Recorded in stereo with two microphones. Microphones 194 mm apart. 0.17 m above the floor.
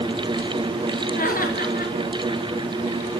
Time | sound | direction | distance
1.1 | laughter | 50° left (ahead or behind) | 3.5 m